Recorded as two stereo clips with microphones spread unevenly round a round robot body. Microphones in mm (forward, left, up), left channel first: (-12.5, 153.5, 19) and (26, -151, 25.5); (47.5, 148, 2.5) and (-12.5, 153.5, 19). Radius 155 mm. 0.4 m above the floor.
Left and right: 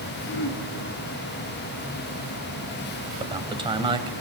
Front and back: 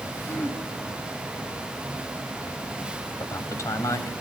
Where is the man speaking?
10° right, 2.5 m.